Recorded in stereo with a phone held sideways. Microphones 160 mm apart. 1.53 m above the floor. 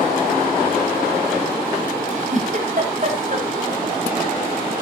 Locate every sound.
2.1 s a giggle: 55° right (ahead or behind), 4 m